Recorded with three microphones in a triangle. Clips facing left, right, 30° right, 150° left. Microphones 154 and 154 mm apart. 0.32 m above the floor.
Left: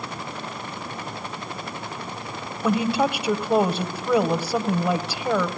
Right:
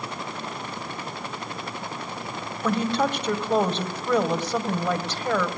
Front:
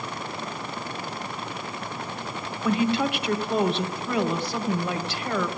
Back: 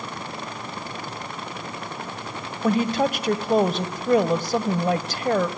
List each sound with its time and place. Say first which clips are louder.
2.6 s a woman speaking: left 2 dB, back 2 dB; 165° left, 1.8 m